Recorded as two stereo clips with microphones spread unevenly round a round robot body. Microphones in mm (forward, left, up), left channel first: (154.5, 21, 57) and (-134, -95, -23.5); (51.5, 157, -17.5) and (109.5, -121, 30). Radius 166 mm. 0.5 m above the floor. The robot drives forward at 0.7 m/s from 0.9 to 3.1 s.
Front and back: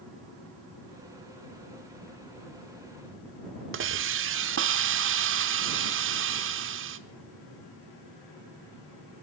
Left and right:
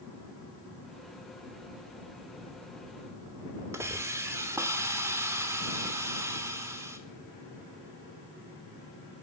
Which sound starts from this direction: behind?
A hiss, at 3.7 s.